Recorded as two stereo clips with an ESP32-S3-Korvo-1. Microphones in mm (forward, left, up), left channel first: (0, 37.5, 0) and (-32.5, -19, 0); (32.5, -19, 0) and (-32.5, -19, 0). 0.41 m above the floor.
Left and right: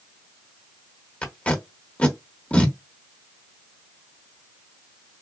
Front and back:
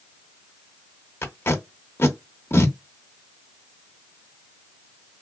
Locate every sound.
1.2 s tape being pulled: 5° left, 1.0 m